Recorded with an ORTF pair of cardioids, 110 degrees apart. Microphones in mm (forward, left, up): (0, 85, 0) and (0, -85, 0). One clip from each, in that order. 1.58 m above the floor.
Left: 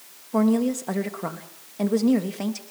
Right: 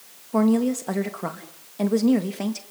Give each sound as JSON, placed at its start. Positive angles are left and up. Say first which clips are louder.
{"t": 0.3, "sound": "a woman speaking", "louder": "right 1 dB", "azimuth_deg": -10, "distance_m": 3.0}